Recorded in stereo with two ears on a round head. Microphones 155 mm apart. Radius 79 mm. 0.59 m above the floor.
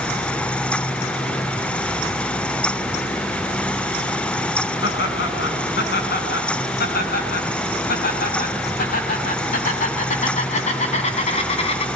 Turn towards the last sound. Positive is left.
turn(degrees=35)  # may be behind; listen again after turning